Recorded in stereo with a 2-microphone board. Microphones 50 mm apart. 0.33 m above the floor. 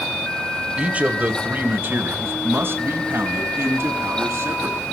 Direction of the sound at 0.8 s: 25° right (ahead or behind).